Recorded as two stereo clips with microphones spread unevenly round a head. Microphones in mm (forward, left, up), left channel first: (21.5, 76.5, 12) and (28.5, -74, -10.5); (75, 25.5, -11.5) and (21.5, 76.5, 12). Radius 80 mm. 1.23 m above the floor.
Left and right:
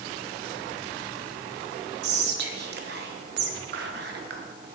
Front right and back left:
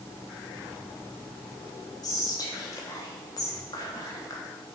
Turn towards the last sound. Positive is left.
turn(degrees=-95)